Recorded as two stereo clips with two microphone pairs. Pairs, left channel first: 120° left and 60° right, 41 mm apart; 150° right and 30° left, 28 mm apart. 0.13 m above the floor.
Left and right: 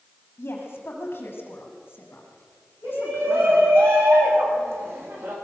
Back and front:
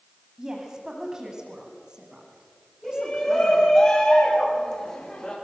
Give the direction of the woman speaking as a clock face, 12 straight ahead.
9 o'clock.